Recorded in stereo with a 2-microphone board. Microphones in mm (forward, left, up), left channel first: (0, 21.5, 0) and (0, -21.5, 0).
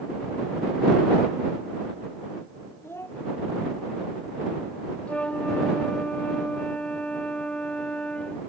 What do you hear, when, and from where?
2.8 s a child speaking: 80° left
5.1 s a flute: 30° left (ahead or behind)